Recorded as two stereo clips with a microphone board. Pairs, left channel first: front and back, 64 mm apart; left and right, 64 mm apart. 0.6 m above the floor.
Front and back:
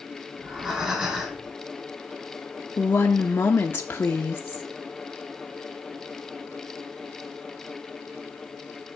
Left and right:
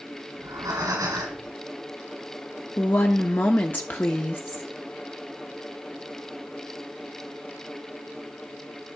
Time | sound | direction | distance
0.3 | breathing | 105° right | 6.5 m
2.8 | a woman speaking | 40° left | 0.9 m